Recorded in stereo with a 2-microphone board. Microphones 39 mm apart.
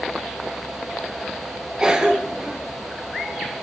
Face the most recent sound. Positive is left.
turn(degrees=-20)  # may be behind; listen again after turning